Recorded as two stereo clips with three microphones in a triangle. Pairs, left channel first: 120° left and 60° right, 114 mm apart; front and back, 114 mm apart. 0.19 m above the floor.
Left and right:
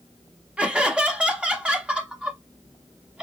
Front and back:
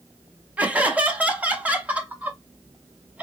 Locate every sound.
0.6 s laughter: 125° right, 1.0 m